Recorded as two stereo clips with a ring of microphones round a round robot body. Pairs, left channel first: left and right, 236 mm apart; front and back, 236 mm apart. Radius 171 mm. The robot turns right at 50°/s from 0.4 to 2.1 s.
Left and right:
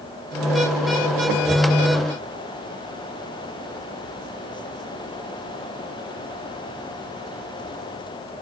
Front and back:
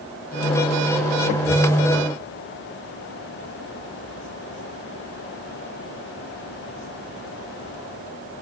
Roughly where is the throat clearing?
No throat clearing in this recording.